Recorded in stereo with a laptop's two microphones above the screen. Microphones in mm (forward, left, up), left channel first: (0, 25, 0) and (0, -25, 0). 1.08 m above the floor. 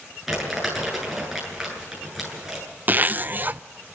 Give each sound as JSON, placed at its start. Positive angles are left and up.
{"t": 0.3, "sound": "crumpling", "side_deg": -5, "distance_m": 9.0}
{"t": 2.9, "sound": "a zipper", "side_deg": -40, "distance_m": 0.5}